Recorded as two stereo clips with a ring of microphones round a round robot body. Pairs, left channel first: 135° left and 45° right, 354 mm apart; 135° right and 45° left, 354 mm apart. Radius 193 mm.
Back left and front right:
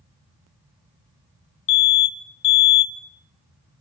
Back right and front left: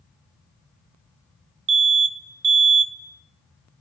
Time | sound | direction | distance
1.7 | an alarm | 100° left | 2.0 m